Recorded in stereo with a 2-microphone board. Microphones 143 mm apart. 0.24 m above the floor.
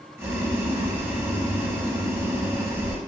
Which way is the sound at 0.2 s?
20° right (ahead or behind).